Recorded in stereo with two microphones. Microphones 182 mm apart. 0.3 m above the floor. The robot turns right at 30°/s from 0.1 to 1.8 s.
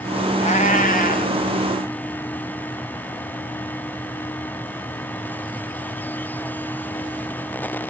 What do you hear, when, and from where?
0.4 s a cat meowing: 40° left (ahead or behind), 0.9 m; by 1.4 s 55° left (ahead or behind), 0.9 m